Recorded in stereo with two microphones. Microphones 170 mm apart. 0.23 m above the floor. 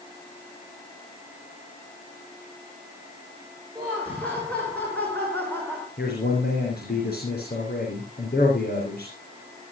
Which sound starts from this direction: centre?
Laughter, at 3.8 s.